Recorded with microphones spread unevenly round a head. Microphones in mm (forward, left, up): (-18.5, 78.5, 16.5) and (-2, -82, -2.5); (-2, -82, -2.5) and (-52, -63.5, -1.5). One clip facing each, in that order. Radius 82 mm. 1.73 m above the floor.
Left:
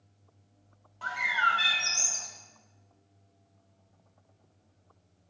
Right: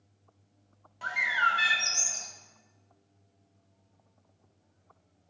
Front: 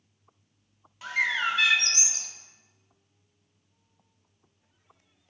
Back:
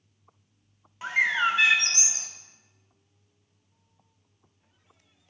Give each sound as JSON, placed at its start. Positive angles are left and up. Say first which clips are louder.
{"t": 1.0, "sound": "a bird", "louder": "left 1 dB, back 3 dB", "azimuth_deg": -150, "distance_m": 0.9}